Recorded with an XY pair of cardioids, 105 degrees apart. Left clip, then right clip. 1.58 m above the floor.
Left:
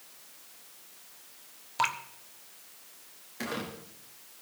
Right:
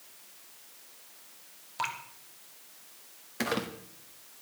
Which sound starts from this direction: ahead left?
Dripping, at 1.8 s.